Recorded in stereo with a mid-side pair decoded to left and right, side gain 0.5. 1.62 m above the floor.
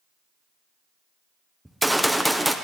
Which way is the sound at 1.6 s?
5° right.